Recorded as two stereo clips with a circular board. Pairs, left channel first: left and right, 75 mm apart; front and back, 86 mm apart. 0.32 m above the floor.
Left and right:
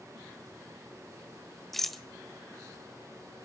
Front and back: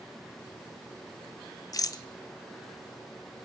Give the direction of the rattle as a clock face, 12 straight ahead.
12 o'clock.